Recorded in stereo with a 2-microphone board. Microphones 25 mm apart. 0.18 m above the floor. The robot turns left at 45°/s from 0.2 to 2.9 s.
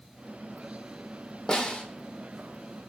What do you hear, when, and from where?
1.5 s a snare drum: 25° left (ahead or behind), 1.1 m; by 1.8 s 40° left (ahead or behind), 1.1 m